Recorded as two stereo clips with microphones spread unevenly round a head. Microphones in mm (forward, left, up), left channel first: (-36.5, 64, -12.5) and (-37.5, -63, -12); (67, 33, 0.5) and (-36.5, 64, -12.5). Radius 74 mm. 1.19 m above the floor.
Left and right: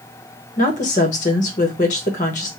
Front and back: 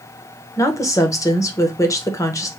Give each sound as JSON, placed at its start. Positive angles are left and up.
{"t": 0.6, "sound": "a woman speaking", "azimuth_deg": 45, "distance_m": 1.1}